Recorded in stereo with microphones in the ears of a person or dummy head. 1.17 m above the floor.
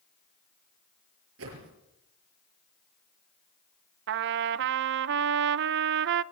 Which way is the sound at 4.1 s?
60° right (ahead or behind).